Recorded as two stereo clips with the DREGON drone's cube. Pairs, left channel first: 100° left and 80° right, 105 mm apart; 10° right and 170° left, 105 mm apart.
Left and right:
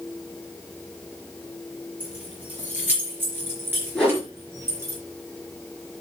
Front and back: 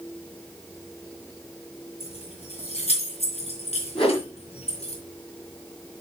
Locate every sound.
2.0 s keys jangling: straight ahead, 4.5 m; by 5.0 s 20° right, 3.5 m
4.0 s a whoosh: 15° left, 6 m